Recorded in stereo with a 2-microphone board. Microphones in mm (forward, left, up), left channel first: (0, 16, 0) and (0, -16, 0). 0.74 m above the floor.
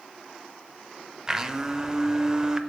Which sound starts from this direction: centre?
A blender, at 1.3 s.